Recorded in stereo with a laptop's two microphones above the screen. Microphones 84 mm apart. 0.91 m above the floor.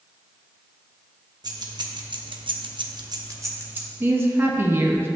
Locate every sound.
1.4 s keys jangling: 55° right (ahead or behind), 1.0 m; by 3.9 s 20° right (ahead or behind), 0.9 m
4.0 s a woman speaking: 25° right (ahead or behind), 0.8 m